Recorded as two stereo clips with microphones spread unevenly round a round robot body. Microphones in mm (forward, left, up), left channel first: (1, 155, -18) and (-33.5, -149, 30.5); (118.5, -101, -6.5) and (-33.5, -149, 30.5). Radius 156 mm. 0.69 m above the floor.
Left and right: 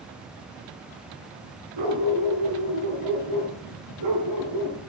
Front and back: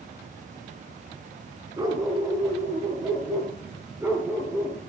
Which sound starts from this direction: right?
A dog barking, at 1.8 s.